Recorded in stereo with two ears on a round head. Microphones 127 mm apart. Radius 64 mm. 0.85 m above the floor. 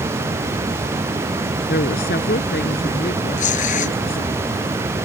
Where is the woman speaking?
70° left (ahead or behind).